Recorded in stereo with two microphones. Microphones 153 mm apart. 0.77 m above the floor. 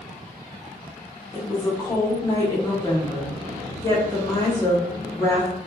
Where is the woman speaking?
20° left (ahead or behind), 0.8 m.